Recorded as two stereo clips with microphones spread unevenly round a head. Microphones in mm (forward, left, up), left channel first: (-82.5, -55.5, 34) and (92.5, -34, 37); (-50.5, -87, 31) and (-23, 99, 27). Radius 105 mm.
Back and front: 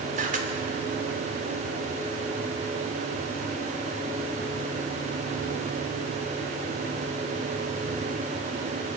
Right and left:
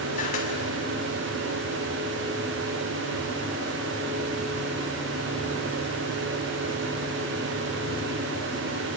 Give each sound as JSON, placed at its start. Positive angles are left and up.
{"t": 0.2, "sound": "a camera shutter", "azimuth_deg": -40, "distance_m": 2.5}